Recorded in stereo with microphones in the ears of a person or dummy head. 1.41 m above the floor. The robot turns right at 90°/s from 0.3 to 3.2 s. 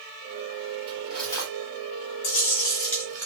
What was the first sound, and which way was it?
Cutlery clinking, 25° right.